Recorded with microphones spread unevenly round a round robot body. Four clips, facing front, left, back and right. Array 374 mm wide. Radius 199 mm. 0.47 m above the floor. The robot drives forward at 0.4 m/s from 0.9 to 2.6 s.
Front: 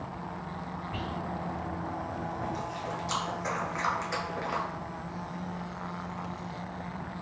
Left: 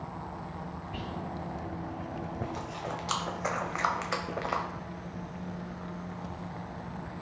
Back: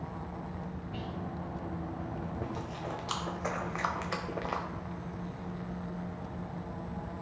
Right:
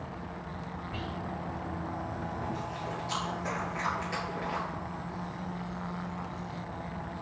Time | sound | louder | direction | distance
0.9 | whispering | even, front 4 dB | 30° right | 1.5 m
2.4 | chewing | right 1 dB, front 4 dB | 90° left | 0.8 m